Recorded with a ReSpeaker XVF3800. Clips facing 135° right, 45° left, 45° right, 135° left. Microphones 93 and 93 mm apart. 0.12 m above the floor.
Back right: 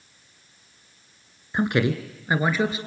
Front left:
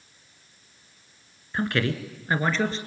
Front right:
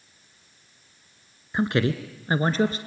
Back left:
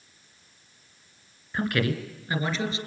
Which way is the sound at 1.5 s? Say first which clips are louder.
Back right 4 dB, front right 3 dB; 90° right.